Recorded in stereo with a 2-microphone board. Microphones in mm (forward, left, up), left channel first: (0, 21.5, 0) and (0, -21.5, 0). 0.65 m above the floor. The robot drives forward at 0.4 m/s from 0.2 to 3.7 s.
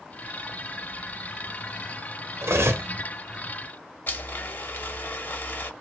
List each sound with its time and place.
2.4 s cutlery clinking: 80° right, 0.7 m; by 2.9 s 65° right (ahead or behind), 0.7 m
4.1 s a blender: 50° left (ahead or behind), 0.6 m